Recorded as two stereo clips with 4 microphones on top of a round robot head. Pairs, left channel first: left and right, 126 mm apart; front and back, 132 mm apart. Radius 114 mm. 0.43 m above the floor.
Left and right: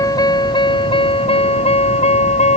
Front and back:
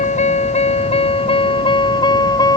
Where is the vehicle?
30° left; by 2.6 s 60° left.